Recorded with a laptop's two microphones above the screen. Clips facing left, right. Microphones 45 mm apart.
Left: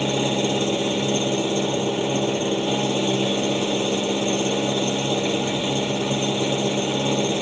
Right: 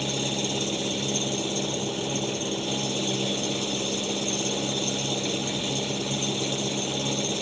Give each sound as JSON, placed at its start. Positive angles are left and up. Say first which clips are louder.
{"t": 0.0, "sound": "an engine running", "louder": "left 7 dB", "side_deg": 35}